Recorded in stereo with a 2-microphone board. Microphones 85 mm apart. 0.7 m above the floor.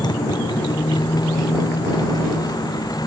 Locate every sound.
0.0 s a motorcycle: 55° left (ahead or behind); by 3.1 s 50° left (ahead or behind)